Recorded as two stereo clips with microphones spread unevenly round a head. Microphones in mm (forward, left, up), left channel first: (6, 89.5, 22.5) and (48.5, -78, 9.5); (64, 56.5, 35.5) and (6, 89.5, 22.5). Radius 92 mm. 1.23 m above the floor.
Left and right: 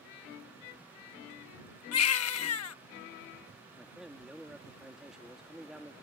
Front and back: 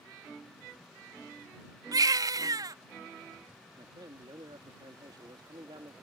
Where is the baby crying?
120° left.